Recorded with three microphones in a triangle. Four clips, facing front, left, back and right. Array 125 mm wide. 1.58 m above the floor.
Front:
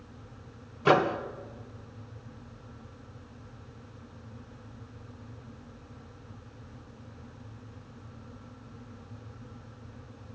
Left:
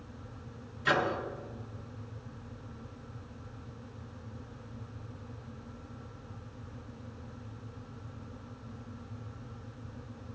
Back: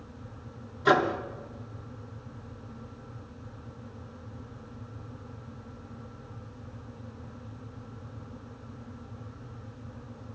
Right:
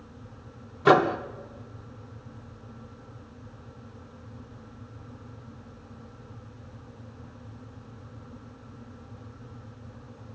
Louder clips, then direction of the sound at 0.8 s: Right 10 dB, even; 75° right.